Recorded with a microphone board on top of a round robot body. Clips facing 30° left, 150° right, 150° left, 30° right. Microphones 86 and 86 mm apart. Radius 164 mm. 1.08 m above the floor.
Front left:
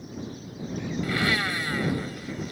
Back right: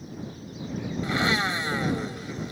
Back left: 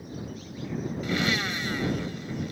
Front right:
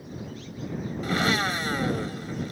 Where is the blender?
85° right.